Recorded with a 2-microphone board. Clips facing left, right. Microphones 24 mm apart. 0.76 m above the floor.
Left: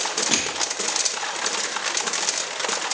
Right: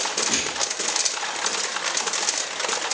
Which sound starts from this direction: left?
Crushing, at 0.3 s.